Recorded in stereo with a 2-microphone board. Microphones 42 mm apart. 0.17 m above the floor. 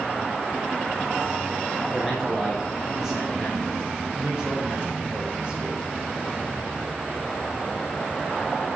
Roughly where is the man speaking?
Centre.